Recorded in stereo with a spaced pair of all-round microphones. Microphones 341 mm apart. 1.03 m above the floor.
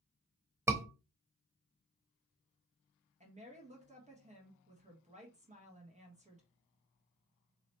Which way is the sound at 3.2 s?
20° right (ahead or behind).